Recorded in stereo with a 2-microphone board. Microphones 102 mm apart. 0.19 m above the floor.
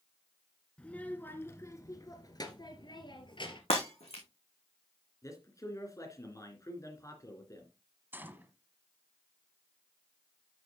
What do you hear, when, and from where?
0.8 s a child speaking: 10° left (ahead or behind), 1.6 m; by 3.6 s 55° left (ahead or behind), 2.5 m
3.7 s breaking glass: 80° left, 4 m
5.2 s a man speaking: 35° left (ahead or behind), 2.5 m
8.1 s a gunshot: 20° right (ahead or behind), 1.3 m